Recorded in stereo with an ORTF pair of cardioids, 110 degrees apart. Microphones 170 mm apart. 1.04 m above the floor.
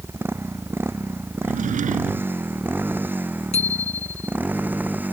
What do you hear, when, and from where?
0.0 s a motorcycle: 15° right; by 5.1 s 10° right
1.4 s a drawer: 50° right
3.5 s a bicycle bell: 40° left